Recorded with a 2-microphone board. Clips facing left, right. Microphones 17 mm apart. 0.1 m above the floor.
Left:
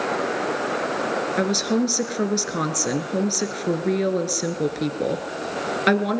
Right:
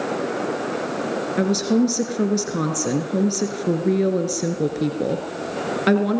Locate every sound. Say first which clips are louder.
1.4 s a woman speaking: right 4 dB; 15° left (ahead or behind), 1.7 m